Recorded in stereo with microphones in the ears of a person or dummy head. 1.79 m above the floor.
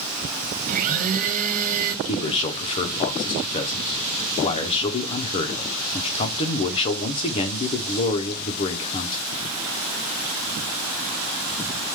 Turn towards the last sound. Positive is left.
turn(degrees=30)  # may be behind; listen again after turning